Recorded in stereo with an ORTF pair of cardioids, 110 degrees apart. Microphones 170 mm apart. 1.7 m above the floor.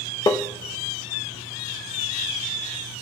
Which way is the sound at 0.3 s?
20° left.